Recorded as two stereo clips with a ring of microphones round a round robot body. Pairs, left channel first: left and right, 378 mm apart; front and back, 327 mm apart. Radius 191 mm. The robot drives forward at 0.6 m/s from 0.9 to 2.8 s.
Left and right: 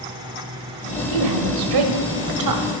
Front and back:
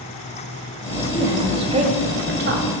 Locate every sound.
1.1 s a woman speaking: 95° right, 1.8 m; by 2.6 s 125° right, 2 m